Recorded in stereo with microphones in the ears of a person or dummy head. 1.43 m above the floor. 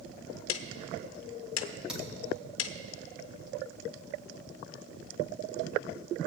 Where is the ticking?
75° left (ahead or behind), 0.6 m.